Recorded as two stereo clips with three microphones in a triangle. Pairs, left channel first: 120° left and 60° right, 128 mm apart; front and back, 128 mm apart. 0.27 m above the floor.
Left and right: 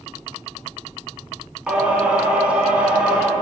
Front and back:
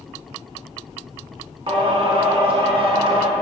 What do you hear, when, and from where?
1.7 s singing: 140° right, 1.0 m